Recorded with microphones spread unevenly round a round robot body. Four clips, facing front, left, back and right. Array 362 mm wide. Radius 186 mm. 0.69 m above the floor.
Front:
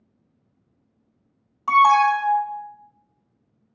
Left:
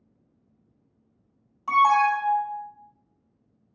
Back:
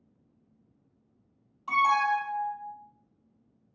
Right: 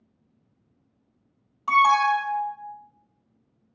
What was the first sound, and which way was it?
An alarm, 10° right.